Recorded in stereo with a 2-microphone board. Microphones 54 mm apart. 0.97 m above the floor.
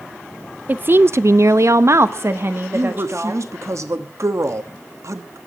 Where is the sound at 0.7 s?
30° right (ahead or behind), 0.6 m; by 3.4 s 40° right (ahead or behind), 1.5 m.